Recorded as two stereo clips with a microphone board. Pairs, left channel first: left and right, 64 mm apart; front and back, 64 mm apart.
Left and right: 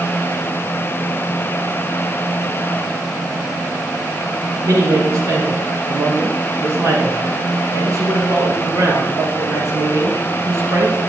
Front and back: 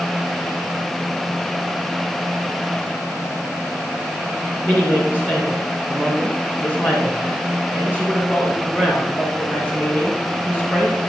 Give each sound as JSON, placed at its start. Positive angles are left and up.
{"t": 4.6, "sound": "a man speaking", "azimuth_deg": -120, "distance_m": 3.5}